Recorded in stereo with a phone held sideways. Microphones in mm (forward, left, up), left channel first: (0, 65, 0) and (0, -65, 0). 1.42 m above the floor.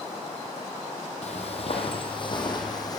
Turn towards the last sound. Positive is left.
turn(degrees=30)  # may be behind; listen again after turning